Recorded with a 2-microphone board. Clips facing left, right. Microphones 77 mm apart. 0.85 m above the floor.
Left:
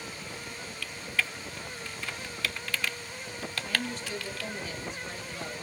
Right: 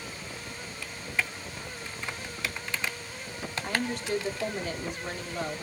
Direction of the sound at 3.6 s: 60° right (ahead or behind).